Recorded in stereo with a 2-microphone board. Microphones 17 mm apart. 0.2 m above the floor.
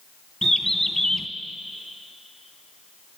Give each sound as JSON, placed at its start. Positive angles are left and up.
{"t": 0.4, "sound": "a bird", "side_deg": 30, "distance_m": 0.7}